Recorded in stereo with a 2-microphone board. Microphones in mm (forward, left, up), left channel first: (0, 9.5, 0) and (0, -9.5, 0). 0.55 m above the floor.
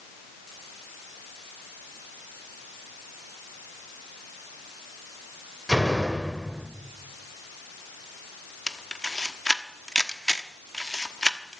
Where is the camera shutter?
20° left (ahead or behind), 0.9 m.